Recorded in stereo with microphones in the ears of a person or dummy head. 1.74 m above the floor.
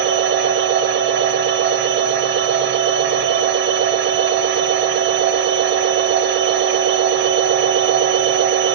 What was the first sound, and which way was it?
A machine running, 60° right (ahead or behind).